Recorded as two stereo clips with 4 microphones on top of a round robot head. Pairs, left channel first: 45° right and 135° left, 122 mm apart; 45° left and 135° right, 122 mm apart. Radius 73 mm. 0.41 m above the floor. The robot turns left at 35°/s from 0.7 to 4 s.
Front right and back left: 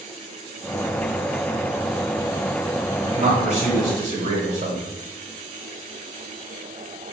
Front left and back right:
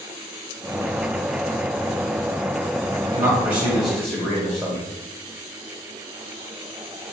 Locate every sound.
3.0 s a man speaking: 175° right, 1.4 m; by 4.8 s 150° left, 1.4 m